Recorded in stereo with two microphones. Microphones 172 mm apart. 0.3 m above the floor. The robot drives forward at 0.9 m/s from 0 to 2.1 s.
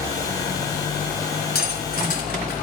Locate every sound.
1.6 s cutlery clinking: 70° left (ahead or behind), 2 m; by 2.5 s 60° left (ahead or behind), 2.5 m